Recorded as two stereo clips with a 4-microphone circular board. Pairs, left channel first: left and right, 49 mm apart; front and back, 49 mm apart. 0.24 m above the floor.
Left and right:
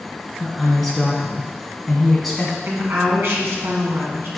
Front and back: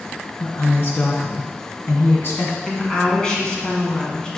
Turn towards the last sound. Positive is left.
turn(degrees=-65)